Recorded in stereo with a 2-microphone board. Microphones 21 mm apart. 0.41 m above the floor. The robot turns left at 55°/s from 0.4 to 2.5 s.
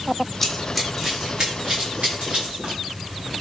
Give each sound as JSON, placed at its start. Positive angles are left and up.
{"t": 0.4, "sound": "running footsteps", "side_deg": 5, "distance_m": 0.7}